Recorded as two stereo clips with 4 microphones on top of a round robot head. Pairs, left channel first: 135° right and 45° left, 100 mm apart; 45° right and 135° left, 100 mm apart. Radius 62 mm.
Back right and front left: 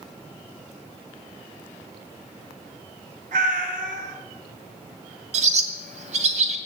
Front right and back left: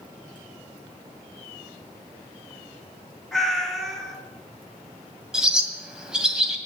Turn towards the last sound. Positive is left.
turn(degrees=50)